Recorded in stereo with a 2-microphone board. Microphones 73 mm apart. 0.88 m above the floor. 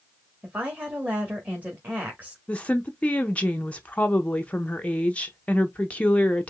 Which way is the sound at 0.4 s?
20° right (ahead or behind).